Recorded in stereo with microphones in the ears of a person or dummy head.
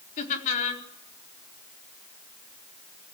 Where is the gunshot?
I don't hear a gunshot.